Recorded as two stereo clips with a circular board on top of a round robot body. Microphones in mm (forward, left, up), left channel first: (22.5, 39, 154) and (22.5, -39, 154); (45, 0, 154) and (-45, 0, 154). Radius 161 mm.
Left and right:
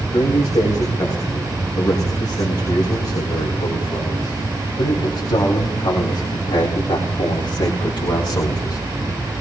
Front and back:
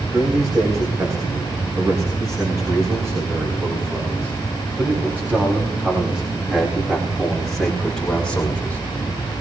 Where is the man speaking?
130° left, 7 m; by 8.8 s 75° left, 3 m.